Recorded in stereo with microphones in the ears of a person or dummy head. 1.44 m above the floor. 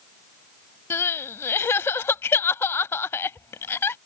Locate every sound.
0.9 s crying: 10° left (ahead or behind)